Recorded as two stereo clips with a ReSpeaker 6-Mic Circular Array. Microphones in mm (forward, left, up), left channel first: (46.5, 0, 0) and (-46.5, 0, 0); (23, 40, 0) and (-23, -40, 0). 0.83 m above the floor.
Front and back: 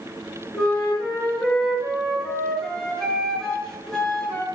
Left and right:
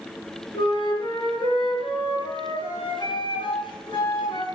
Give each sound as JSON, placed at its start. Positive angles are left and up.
{"t": 0.5, "sound": "a flute", "azimuth_deg": 85, "distance_m": 7.0}